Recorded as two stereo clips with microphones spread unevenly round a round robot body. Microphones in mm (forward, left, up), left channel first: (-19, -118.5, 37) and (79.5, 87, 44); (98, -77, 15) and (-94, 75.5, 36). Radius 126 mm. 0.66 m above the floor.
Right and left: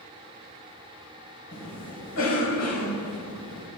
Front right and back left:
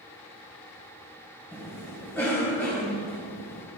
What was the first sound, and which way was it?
A cough, 120° right.